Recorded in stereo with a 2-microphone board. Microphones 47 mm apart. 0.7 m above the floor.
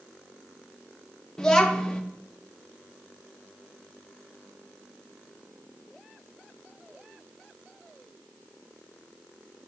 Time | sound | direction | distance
1.4 | a child speaking | 15° left (ahead or behind) | 0.5 m